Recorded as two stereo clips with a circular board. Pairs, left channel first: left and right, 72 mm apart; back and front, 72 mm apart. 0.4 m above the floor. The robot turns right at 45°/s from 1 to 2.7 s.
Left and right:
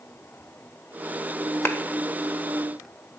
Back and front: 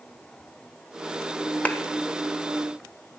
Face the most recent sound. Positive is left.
turn(degrees=175)